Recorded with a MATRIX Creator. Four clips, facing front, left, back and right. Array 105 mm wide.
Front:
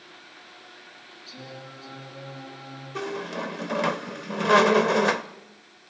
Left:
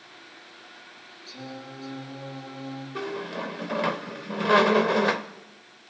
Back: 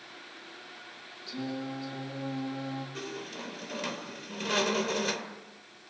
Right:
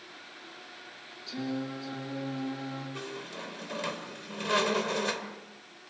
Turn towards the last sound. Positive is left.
turn(degrees=35)